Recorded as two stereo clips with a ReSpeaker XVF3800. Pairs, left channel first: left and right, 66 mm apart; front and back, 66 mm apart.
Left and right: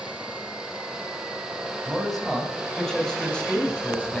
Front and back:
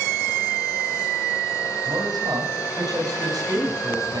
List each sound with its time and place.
1.9 s a man speaking: straight behind, 7.5 m; by 4.2 s 160° left, 8 m